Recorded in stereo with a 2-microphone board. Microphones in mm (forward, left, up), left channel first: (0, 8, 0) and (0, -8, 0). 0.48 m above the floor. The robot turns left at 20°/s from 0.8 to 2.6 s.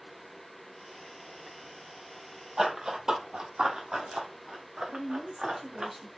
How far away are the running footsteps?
About 1.1 m.